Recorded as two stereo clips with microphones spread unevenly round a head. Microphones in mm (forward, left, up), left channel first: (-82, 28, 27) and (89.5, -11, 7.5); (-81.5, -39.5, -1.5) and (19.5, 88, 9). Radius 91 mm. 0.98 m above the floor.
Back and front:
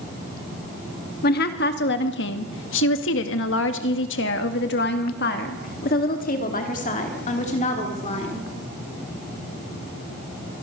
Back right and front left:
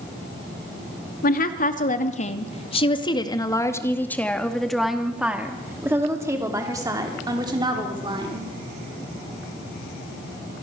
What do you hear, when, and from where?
1.2 s a woman speaking: 155° right, 2 m; by 8.5 s 110° left, 4 m